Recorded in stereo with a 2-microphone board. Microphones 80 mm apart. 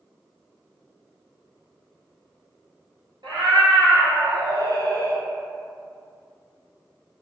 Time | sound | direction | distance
3.2 | a cat meowing | 80° right | 1.3 m